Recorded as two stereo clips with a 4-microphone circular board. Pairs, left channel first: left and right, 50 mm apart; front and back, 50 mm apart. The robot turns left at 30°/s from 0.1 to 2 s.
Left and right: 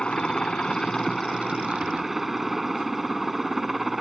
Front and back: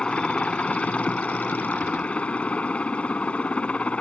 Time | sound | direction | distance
0.0 | a helicopter | 45° left | ?